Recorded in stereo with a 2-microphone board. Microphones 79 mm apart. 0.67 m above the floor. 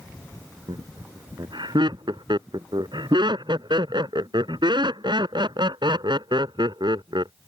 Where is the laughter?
70° right (ahead or behind).